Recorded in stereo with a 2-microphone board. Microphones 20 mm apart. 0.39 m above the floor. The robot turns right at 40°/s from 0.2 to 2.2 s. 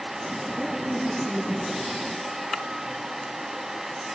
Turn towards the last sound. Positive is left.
turn(degrees=5)